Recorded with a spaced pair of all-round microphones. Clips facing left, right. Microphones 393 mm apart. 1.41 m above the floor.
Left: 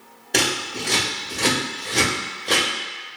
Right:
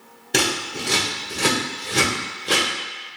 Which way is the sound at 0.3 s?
20° right (ahead or behind).